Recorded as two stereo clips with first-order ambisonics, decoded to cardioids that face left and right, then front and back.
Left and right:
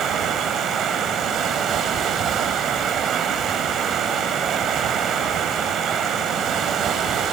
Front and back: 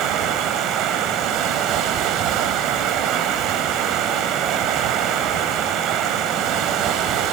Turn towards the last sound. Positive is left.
turn(degrees=-145)